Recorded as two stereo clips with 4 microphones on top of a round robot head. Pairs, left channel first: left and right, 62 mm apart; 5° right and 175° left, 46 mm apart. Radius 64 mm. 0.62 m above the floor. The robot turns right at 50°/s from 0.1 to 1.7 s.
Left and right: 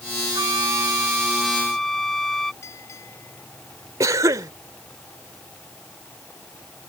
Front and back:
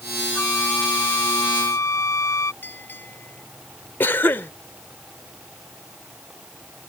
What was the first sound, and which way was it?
A flute, 65° right.